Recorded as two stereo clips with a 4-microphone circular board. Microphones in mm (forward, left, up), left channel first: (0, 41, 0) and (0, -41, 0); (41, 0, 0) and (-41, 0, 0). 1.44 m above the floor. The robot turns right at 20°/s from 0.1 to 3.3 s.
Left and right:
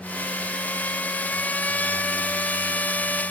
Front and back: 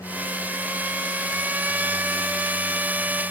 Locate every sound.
Only background noise.